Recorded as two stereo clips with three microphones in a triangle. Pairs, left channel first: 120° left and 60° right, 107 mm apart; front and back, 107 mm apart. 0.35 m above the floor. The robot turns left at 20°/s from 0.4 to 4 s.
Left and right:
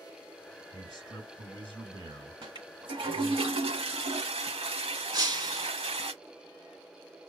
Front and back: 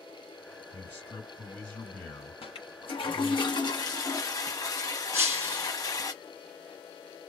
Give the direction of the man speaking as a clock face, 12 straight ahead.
2 o'clock.